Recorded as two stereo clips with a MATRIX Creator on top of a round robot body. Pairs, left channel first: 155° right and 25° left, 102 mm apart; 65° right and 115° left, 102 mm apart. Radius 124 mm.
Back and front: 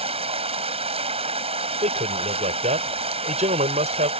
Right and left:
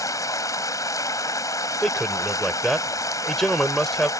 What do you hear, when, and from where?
0.0 s running water: 5° right
1.8 s a man speaking: 20° left